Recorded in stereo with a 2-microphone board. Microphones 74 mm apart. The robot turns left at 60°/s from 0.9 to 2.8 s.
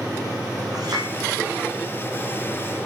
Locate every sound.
0.7 s a clink: 60° right (ahead or behind), 6.5 m; by 1.1 s 70° right (ahead or behind), 6.5 m